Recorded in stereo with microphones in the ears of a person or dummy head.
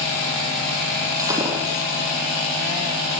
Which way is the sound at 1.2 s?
20° right (ahead or behind).